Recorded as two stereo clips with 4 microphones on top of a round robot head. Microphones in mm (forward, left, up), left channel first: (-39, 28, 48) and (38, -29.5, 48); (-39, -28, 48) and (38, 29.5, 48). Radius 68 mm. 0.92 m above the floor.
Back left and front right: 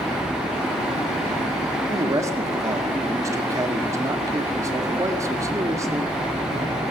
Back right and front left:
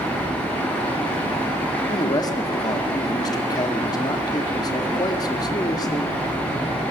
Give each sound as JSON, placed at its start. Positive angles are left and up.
{"t": 1.9, "sound": "a man speaking", "azimuth_deg": -95, "distance_m": 2.0}